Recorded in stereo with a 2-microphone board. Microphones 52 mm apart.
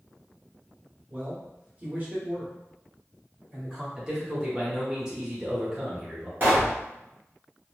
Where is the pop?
35° right (ahead or behind), 1.1 m.